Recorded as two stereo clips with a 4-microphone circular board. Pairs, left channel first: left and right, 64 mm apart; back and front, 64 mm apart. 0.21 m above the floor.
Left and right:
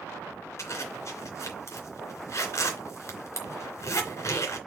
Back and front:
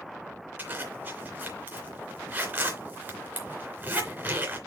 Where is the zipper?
55° left, 3 m.